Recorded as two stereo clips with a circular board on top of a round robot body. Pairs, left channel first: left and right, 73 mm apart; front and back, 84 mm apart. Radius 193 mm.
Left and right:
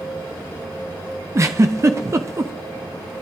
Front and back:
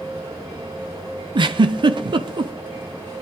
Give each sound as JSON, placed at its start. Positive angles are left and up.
{"t": 1.4, "sound": "a giggle", "azimuth_deg": -145, "distance_m": 0.7}